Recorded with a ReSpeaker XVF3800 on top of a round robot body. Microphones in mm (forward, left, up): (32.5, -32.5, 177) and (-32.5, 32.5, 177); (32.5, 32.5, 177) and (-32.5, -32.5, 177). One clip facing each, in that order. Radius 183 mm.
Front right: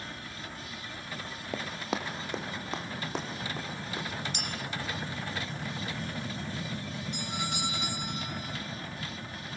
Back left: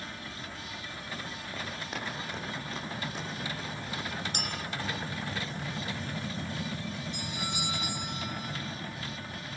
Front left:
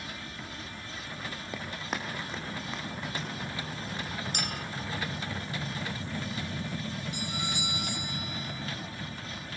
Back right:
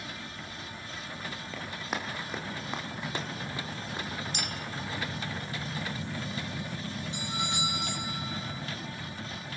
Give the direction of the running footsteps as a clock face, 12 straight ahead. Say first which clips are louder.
Front right 6 dB, even; 1 o'clock.